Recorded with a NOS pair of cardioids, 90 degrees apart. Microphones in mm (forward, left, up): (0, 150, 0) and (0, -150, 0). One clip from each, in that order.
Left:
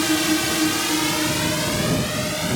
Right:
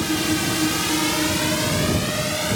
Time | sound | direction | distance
0.0 | a drone | 60° left | ?